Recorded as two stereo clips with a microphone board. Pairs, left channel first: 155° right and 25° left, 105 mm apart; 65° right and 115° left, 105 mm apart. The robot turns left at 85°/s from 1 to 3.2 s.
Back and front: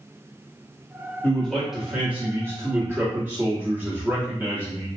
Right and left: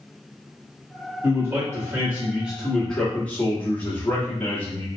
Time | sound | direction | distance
1.2 | a man speaking | 150° left | 1.2 m